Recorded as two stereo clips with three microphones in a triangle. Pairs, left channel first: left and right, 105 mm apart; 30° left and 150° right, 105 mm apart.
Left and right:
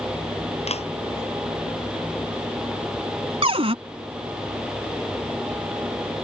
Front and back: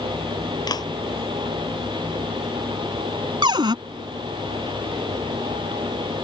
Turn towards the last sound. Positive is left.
turn(degrees=-110)